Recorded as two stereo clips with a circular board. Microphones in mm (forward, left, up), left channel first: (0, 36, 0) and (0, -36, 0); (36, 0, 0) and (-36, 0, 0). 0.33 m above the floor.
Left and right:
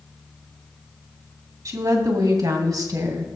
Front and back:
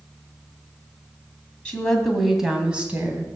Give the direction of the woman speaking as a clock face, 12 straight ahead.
2 o'clock.